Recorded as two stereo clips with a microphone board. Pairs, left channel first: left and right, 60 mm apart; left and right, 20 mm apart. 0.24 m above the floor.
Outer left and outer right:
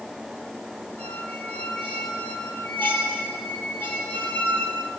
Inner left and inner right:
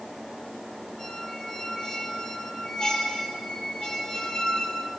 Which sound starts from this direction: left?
A squeak, at 1.0 s.